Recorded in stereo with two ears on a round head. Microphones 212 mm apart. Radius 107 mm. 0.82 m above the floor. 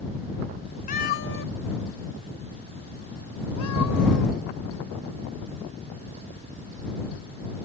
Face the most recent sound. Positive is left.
turn(degrees=80)